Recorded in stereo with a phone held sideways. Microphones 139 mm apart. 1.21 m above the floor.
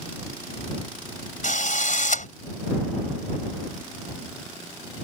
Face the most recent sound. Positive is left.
turn(degrees=65)  # may be behind; listen again after turning